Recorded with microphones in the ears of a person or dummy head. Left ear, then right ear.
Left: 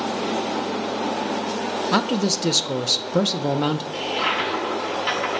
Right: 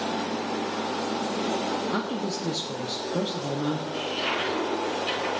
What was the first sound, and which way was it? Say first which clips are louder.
A man speaking: left 8 dB; 80° left.